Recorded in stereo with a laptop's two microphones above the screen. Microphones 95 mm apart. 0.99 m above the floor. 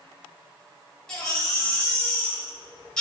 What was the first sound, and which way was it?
A baby crying, 10° left (ahead or behind).